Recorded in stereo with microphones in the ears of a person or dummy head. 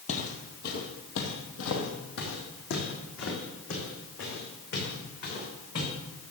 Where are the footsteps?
40° left (ahead or behind), 2.5 m; by 5.9 s 50° left (ahead or behind), 7.5 m.